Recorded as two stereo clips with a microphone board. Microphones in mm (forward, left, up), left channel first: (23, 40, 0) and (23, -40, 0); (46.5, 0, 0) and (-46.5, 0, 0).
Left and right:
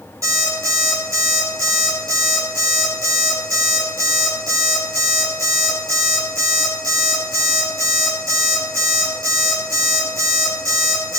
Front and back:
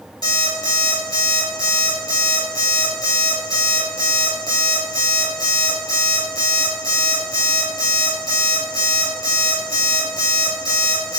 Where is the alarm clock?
45° right, 5 m.